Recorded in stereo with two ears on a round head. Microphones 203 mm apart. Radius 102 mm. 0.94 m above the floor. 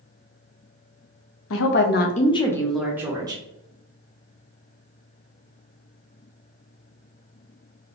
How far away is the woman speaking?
About 0.7 m.